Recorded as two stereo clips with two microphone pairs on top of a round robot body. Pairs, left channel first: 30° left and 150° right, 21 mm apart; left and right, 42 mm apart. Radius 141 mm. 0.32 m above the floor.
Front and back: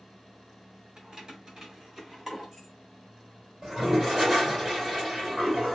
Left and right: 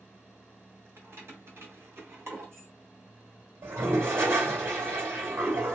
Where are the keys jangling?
105° right, 1.3 m; by 2.7 s 80° right, 1.9 m.